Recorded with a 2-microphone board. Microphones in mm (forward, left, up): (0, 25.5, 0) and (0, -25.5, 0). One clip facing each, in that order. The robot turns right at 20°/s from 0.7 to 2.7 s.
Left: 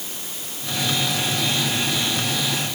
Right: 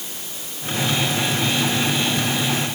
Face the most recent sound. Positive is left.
No sound to turn to.